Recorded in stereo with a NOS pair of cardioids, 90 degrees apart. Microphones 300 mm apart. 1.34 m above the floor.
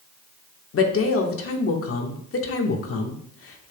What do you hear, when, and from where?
0.7 s a woman speaking: 50° left, 1.6 m